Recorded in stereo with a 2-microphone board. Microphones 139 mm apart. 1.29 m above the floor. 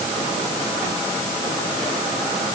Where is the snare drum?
I don't hear a snare drum.